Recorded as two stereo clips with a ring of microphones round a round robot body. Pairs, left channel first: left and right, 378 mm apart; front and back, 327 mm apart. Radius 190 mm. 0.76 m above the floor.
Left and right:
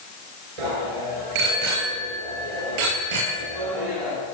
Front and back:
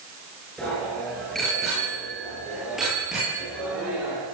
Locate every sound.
0.6 s a bicycle bell: 90° right, 9 m